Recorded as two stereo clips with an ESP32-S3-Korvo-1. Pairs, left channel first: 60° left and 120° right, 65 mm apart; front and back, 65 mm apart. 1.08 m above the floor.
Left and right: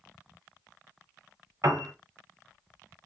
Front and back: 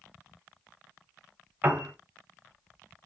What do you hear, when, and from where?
1.6 s a piano: 125° right, 1.3 m